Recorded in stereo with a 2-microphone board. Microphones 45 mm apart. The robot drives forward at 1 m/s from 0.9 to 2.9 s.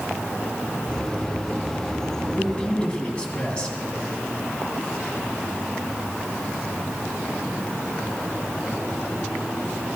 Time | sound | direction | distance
2.3 | a man speaking | 25° left (ahead or behind) | 1.9 m